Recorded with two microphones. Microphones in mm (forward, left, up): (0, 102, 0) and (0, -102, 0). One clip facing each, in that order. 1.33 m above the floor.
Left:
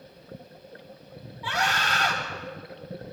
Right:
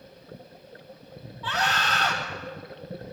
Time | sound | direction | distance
1.4 | a scream | 10° left (ahead or behind) | 4 m